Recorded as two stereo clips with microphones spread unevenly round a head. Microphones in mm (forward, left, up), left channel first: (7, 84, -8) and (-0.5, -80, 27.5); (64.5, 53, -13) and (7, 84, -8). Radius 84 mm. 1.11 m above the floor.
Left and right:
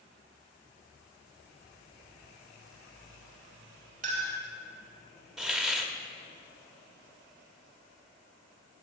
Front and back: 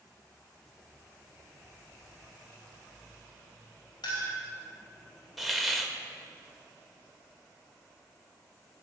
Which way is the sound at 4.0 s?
50° right.